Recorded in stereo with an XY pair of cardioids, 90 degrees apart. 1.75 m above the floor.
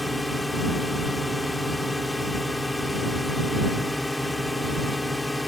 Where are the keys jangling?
No keys jangling in this recording.